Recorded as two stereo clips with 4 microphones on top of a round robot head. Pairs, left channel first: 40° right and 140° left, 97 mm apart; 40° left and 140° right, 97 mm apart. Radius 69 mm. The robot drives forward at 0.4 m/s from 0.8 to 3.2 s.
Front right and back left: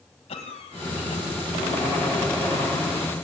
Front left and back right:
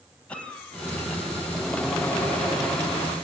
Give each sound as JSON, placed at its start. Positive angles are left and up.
{"t": 0.3, "sound": "a cough", "azimuth_deg": -40, "distance_m": 4.0}